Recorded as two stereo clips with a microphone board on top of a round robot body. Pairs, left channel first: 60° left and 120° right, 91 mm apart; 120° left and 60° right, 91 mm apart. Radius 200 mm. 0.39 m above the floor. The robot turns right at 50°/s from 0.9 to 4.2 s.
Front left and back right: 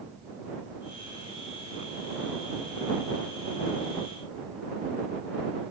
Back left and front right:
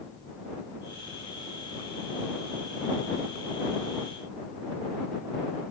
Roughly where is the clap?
No clap in this recording.